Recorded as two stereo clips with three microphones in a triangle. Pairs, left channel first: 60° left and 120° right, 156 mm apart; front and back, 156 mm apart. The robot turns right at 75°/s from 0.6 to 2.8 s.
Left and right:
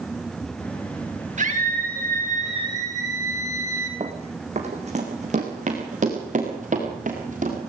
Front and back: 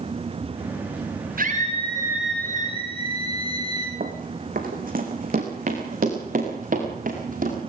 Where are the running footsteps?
165° right, 2.5 m; by 7.6 s 155° right, 7 m.